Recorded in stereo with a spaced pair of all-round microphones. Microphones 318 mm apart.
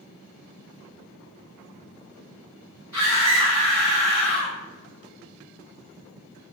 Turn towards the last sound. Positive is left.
turn(degrees=75)  # may be behind; listen again after turning